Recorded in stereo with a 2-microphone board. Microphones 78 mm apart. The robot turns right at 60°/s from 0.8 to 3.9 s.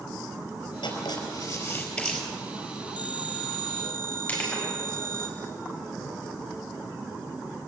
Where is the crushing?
20° left (ahead or behind), 6 m.